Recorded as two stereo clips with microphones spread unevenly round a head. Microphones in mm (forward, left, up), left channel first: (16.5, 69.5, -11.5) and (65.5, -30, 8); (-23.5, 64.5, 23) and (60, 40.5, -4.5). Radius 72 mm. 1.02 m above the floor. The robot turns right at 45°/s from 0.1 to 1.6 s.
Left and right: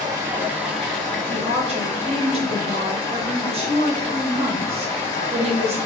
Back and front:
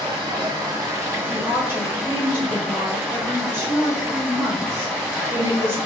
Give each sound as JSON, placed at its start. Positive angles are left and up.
{"t": 0.0, "sound": "running water", "azimuth_deg": -5, "distance_m": 1.3}
{"t": 1.3, "sound": "a woman speaking", "azimuth_deg": -60, "distance_m": 0.8}